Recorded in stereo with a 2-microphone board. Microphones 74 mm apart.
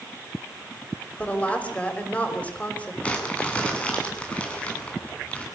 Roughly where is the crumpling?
Centre.